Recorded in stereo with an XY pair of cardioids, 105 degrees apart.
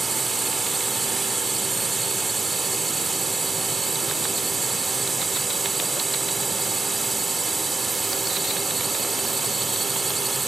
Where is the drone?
25° right.